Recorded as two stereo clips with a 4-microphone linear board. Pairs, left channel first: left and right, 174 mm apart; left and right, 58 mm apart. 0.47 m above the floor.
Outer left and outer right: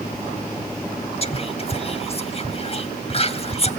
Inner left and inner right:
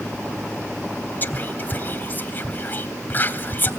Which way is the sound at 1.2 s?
35° left (ahead or behind).